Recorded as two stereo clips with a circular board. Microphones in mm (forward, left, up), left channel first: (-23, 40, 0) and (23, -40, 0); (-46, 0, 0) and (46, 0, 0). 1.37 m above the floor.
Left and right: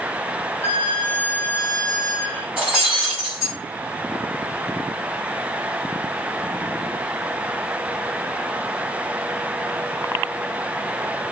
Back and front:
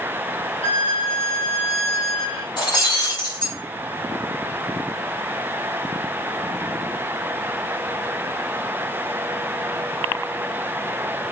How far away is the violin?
About 1.8 m.